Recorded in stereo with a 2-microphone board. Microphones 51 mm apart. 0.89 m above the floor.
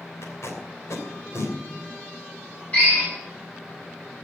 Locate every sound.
0.2 s tape being pulled: 70° left (ahead or behind), 3 m
2.7 s a drill: 30° left (ahead or behind), 6.5 m